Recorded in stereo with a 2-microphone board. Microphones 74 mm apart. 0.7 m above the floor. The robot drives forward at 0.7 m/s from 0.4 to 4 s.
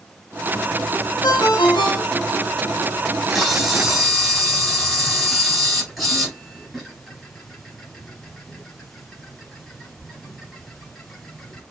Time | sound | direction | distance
1.2 | a ringtone | 70° left (ahead or behind) | 1.3 m
3.1 | a camera shutter | centre (ahead or behind) | 4 m